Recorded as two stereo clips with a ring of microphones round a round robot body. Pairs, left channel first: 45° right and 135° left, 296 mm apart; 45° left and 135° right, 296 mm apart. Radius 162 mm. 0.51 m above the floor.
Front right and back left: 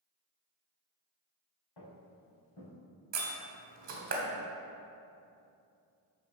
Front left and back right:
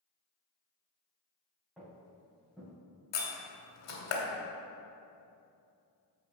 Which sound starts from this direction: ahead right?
Footsteps, at 1.8 s.